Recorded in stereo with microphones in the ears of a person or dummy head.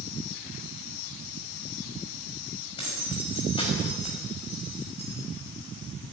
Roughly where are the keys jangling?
Left.